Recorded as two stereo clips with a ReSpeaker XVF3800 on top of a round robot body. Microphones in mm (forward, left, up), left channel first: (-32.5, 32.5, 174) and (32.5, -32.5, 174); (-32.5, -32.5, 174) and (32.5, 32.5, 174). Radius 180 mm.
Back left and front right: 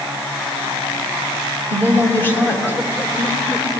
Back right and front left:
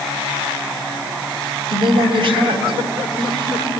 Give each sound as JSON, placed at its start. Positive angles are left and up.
{"t": 1.7, "sound": "a woman speaking", "azimuth_deg": 70, "distance_m": 3.5}